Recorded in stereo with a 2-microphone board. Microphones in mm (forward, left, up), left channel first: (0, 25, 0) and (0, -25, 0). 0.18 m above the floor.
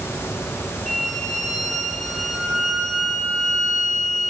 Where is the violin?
5° left (ahead or behind), 3.5 m.